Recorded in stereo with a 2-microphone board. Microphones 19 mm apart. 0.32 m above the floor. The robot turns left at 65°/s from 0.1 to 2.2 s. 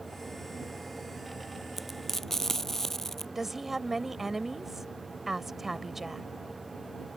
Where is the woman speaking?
15° right (ahead or behind).